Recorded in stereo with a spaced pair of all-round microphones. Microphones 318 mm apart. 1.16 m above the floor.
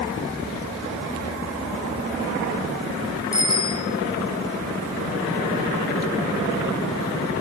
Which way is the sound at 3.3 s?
50° left (ahead or behind).